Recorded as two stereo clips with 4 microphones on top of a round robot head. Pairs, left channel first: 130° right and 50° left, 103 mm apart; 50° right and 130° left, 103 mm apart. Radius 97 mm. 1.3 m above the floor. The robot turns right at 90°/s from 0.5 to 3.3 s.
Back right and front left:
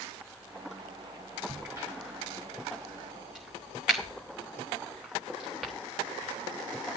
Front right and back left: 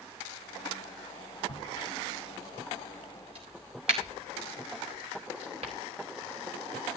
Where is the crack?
30° right, 1.0 m; by 5.7 s 135° left, 1.0 m.